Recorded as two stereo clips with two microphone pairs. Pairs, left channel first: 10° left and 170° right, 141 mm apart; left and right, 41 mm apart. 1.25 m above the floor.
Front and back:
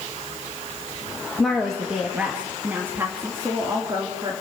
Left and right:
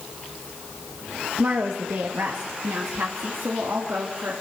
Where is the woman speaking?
75° right, 1.7 m; by 4.3 s 110° right, 3.5 m.